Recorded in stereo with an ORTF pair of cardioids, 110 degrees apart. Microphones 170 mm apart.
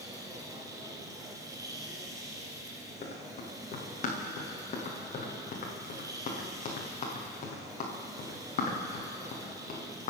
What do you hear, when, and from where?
0.0 s a machine running: 20° right, 4.5 m
3.0 s running footsteps: 45° left, 7 m